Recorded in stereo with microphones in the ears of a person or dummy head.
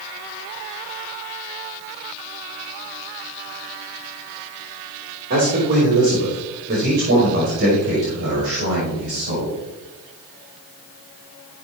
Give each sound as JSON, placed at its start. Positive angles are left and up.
{"t": 5.3, "sound": "a man speaking", "side_deg": -45, "distance_m": 3.5}